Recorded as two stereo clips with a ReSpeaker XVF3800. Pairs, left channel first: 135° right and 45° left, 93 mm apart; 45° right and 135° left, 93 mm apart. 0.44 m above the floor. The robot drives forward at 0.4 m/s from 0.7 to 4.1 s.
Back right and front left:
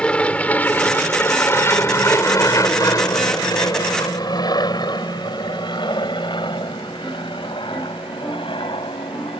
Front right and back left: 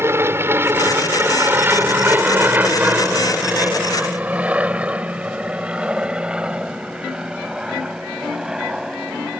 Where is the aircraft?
160° left; by 9.4 s 140° right.